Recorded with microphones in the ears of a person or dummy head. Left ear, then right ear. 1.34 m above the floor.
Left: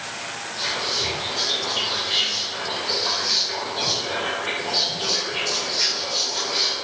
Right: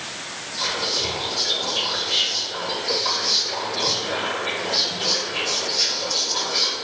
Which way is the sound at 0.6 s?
35° right (ahead or behind).